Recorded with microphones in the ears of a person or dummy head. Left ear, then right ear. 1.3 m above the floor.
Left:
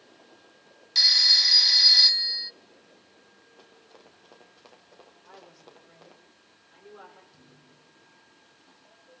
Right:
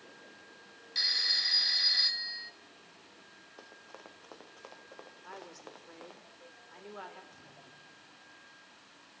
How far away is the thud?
About 8.5 m.